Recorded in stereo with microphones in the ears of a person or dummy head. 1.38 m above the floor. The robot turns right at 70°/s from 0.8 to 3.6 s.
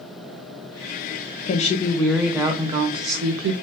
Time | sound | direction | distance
1.4 | a woman speaking | 125° left | 0.8 m